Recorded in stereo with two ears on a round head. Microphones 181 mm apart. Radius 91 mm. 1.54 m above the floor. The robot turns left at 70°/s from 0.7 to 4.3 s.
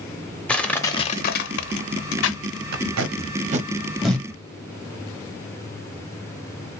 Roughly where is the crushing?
Centre.